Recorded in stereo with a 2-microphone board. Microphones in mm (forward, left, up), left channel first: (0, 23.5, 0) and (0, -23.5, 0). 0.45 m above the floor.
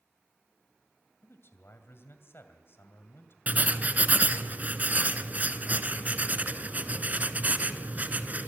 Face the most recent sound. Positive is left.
turn(degrees=-35)  # may be behind; listen again after turning